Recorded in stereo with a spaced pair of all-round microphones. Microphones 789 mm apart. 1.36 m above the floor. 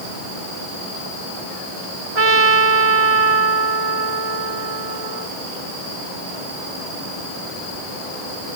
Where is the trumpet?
45° right (ahead or behind).